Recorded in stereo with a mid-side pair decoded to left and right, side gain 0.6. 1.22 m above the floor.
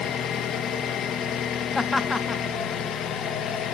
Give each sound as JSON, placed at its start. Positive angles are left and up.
{"t": 0.0, "sound": "an engine running", "azimuth_deg": 50, "distance_m": 0.8}
{"t": 1.8, "sound": "laughter", "azimuth_deg": 15, "distance_m": 0.6}